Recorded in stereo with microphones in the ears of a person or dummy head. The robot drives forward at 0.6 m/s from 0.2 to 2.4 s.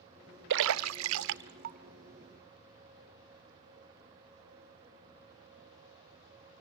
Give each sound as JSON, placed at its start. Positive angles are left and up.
{"t": 0.5, "sound": "a splash", "side_deg": -65, "distance_m": 0.5}